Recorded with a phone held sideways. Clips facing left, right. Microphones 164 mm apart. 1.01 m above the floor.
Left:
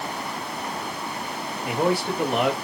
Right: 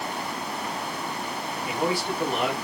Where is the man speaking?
65° left (ahead or behind), 2.5 m.